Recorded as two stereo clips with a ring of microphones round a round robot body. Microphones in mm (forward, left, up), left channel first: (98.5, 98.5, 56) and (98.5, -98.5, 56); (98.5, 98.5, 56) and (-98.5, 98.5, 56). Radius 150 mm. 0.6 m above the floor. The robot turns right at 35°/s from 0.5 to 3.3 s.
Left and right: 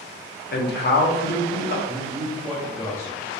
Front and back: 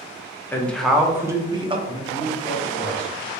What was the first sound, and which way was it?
A man speaking, 80° left.